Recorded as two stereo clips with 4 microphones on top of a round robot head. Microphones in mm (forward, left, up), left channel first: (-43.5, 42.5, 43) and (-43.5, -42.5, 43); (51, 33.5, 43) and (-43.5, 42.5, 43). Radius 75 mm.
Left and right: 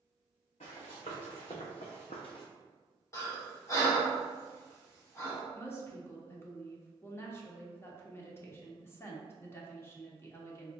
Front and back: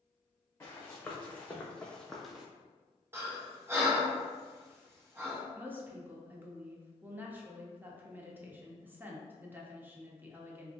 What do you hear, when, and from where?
0.6 s running footsteps: 65° left, 1.8 m; by 2.5 s 90° left, 0.6 m
3.1 s breathing: 120° left, 1.1 m
5.5 s a woman speaking: 120° left, 0.8 m